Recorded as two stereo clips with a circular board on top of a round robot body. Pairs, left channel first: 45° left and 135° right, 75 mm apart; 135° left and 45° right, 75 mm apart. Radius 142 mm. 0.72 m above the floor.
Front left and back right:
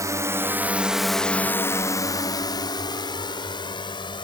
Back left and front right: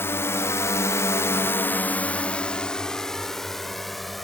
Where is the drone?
170° right; by 4.2 s 45° left.